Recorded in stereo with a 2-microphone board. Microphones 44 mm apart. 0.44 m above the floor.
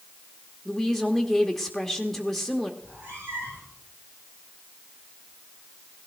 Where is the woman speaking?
5° left (ahead or behind), 0.9 m.